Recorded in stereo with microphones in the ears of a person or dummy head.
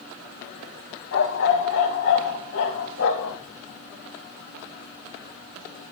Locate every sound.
1.1 s a dog barking: 65° left (ahead or behind), 4 m; by 3.4 s 75° left (ahead or behind), 4 m